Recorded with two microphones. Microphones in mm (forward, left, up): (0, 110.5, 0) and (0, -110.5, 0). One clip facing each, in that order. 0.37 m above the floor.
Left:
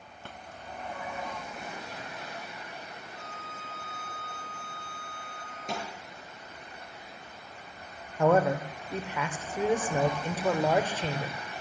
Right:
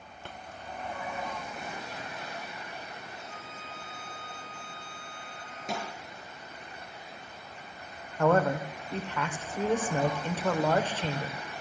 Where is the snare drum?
Centre (ahead or behind), 8 m.